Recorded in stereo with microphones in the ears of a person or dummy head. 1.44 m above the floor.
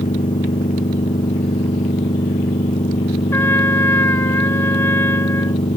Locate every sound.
0.0 s a machine running: 25° left (ahead or behind)
3.3 s a trumpet: 10° left (ahead or behind)